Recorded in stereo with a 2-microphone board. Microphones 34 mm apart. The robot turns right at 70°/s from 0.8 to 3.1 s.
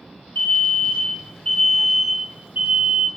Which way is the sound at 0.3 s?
110° left.